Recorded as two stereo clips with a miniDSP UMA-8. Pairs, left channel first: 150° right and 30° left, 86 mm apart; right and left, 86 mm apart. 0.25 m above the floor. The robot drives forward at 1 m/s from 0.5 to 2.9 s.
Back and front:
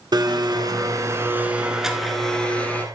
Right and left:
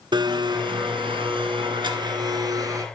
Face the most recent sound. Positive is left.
turn(degrees=140)